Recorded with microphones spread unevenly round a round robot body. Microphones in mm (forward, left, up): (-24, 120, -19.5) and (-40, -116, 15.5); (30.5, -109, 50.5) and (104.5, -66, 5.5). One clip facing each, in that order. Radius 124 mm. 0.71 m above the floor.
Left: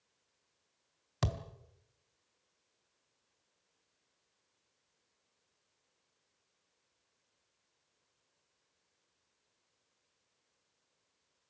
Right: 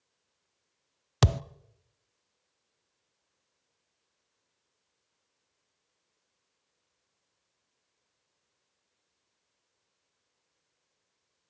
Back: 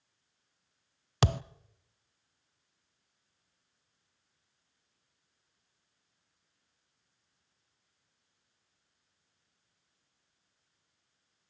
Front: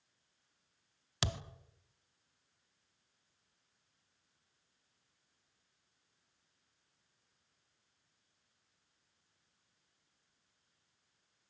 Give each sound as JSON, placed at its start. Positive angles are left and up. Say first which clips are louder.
{"t": 1.2, "sound": "a thud", "louder": "right 10 dB, back 10 dB", "azimuth_deg": -110, "distance_m": 0.6}